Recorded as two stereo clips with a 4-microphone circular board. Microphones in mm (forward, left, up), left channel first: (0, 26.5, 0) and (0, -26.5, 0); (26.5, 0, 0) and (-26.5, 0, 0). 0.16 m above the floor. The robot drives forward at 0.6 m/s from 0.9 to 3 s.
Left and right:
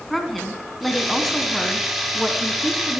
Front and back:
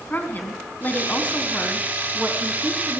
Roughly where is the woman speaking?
Ahead.